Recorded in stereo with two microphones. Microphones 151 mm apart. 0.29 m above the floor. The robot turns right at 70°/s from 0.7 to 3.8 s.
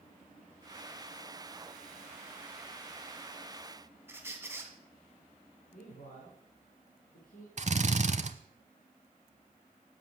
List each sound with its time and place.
4.1 s a squeak: 15° right (ahead or behind), 1.7 m
5.7 s a man speaking: 65° left (ahead or behind), 3 m
7.6 s a drill: 50° right (ahead or behind), 0.8 m